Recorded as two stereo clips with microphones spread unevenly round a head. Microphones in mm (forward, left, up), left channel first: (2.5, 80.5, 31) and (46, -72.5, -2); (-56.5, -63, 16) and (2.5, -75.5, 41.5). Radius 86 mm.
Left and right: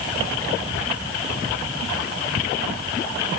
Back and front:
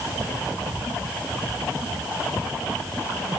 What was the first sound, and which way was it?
Only background noise.